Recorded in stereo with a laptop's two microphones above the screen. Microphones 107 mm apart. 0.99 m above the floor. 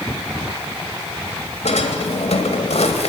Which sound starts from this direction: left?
A drawer, at 1.6 s.